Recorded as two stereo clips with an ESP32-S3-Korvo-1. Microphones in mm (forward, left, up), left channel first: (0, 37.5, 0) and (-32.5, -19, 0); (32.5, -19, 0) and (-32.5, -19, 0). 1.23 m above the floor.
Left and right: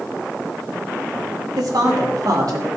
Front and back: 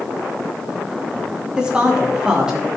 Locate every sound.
1.6 s a woman speaking: 105° right, 2.5 m; by 2.7 s 100° right, 4 m